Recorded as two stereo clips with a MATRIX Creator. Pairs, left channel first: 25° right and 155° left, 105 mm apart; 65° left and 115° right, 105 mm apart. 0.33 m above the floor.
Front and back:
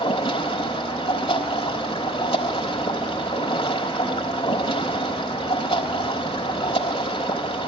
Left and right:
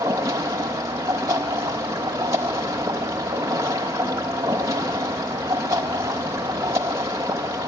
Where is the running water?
50° right, 4.5 m.